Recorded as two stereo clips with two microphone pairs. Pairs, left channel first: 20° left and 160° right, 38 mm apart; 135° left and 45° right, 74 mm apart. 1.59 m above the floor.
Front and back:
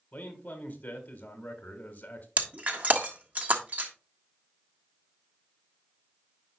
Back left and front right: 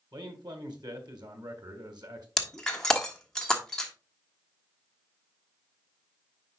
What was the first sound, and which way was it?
A man speaking, 30° right.